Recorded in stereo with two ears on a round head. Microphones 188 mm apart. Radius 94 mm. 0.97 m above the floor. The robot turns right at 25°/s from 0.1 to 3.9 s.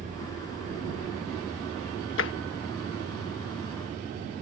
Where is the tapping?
65° left (ahead or behind).